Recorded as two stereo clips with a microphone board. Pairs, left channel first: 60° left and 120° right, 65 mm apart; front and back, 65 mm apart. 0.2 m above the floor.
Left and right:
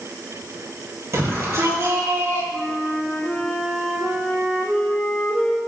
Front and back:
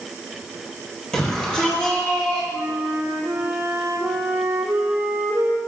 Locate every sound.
1.1 s a shout: 80° right, 4 m; by 2.4 s 65° right, 5 m
2.5 s a flute: 130° left, 4.5 m